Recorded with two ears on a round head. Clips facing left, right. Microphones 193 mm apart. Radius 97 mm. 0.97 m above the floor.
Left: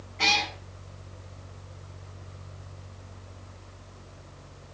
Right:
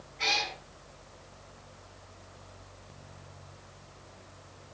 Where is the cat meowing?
70° left (ahead or behind), 4.5 m.